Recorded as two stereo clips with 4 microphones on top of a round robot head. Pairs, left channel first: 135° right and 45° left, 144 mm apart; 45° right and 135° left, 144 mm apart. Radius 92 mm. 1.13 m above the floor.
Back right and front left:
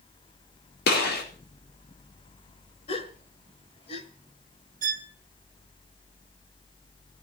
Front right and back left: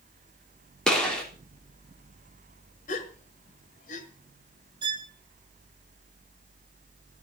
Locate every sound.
0.9 s a gunshot: 130° right, 4 m
2.9 s a gasp: 80° right, 1.4 m
4.8 s a violin: 75° left, 0.9 m